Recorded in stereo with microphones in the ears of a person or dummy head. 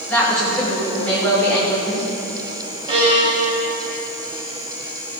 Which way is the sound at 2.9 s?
35° right (ahead or behind).